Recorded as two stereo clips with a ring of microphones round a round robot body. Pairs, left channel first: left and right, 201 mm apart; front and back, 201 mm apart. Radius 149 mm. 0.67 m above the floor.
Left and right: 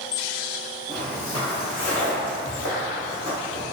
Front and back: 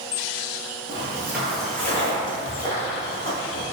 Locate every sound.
0.9 s footsteps: 165° left, 0.6 m; by 3.6 s 50° left, 1.4 m